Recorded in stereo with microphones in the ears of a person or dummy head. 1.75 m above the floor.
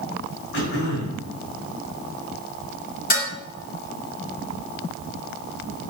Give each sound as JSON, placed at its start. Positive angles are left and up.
{"t": 0.5, "sound": "throat clearing", "side_deg": 55, "distance_m": 6.0}
{"t": 3.1, "sound": "dishes clattering", "side_deg": 45, "distance_m": 3.5}